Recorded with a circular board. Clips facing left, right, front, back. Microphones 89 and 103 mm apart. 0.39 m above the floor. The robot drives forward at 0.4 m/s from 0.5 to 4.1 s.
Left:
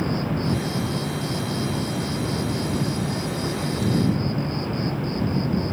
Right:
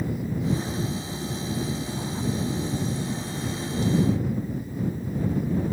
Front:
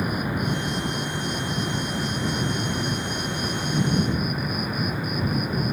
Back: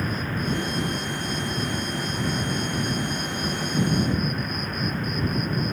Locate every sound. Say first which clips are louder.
0.0 s an insect: left 4 dB, front 2 dB; 75° left; by 5.7 s 80° left